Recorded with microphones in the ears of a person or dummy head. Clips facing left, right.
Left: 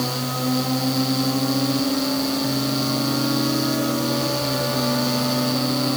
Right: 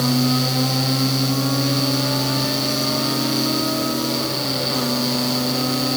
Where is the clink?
No clink in this recording.